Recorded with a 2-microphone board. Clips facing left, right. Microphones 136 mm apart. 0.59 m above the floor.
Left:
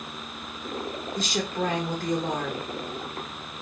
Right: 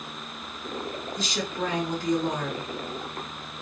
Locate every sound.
1.1 s a woman speaking: 50° left (ahead or behind), 1.2 m